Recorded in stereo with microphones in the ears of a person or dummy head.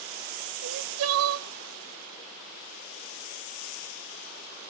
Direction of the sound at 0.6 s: 75° right (ahead or behind).